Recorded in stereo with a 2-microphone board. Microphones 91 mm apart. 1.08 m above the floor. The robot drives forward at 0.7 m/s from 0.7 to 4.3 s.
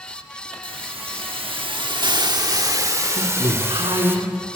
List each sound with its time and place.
0.6 s a hiss: 65° right (ahead or behind), 1.1 m; by 4.2 s 25° right (ahead or behind), 2.5 m
3.2 s a woman speaking: 70° right (ahead or behind), 3 m; by 4.6 s 55° right (ahead or behind), 3 m